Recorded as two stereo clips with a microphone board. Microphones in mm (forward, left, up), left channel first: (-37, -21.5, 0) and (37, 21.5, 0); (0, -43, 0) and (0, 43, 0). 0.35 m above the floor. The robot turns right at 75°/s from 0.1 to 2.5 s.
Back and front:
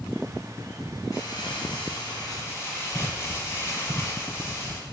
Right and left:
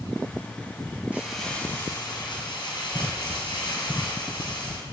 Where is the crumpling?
160° left, 2.5 m; by 4.8 s 95° right, 2.5 m.